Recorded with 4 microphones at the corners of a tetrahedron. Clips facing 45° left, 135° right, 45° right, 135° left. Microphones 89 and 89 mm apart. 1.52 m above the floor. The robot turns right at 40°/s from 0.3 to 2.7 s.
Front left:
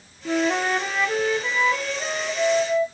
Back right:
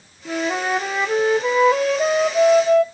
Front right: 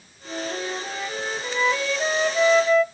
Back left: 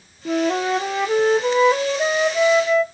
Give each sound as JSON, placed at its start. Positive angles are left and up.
{"t": 0.2, "sound": "a flute", "azimuth_deg": 130, "distance_m": 0.5}